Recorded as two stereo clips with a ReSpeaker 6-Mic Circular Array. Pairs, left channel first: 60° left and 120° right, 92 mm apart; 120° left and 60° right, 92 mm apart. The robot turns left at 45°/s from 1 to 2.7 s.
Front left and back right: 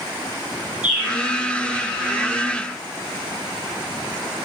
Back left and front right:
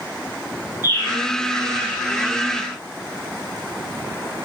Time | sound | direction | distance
0.8 | a bird | 165° left | 5.5 m